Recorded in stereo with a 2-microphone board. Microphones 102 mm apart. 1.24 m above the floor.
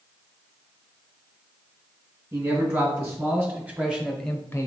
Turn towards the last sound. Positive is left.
turn(degrees=30)  # may be behind; listen again after turning